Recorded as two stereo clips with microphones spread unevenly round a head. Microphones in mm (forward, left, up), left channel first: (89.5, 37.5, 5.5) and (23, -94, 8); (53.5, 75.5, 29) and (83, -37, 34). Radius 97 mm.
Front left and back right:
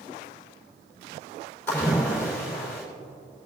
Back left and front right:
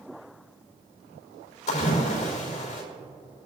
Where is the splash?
140° left, 4 m.